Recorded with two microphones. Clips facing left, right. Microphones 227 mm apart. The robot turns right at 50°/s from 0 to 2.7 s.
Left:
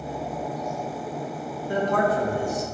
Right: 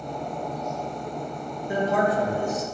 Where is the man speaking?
20° right, 2.0 m; by 2.6 s 30° left, 2.0 m.